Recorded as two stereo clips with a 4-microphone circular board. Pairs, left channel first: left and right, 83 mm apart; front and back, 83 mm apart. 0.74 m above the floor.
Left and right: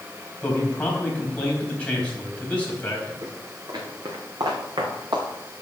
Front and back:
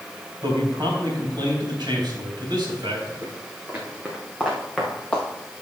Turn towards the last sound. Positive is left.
turn(degrees=-80)